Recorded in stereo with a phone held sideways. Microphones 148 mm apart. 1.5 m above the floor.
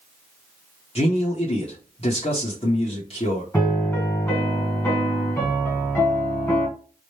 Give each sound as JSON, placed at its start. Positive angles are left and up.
{"t": 0.9, "sound": "a man speaking", "side_deg": 40, "distance_m": 1.1}
{"t": 3.5, "sound": "a piano", "side_deg": 15, "distance_m": 1.4}